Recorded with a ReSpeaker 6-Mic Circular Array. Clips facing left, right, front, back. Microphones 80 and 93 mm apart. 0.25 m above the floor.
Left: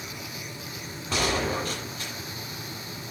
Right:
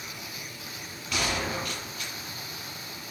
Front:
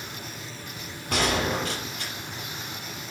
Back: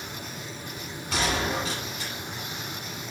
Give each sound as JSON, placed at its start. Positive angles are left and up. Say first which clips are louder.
{"t": 1.1, "sound": "a gunshot", "louder": "left 4 dB, front 2 dB", "azimuth_deg": 35, "distance_m": 6.0}